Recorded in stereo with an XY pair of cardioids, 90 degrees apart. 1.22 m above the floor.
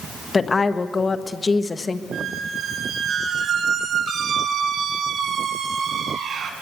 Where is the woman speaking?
35° left, 1.4 m.